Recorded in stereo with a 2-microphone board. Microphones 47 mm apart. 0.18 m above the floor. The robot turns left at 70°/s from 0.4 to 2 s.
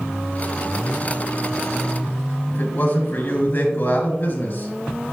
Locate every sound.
2.5 s a man speaking: 40° left (ahead or behind), 2 m